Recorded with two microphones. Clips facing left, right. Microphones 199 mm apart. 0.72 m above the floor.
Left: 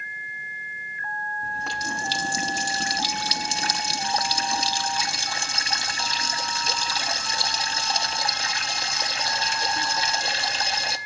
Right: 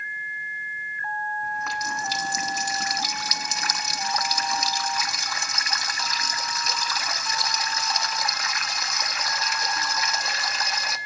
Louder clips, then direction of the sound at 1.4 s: Right 1 dB; 30° left (ahead or behind).